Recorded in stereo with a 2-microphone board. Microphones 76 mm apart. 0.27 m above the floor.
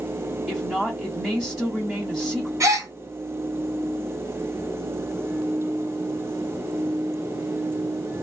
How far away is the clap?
I don't hear a clap.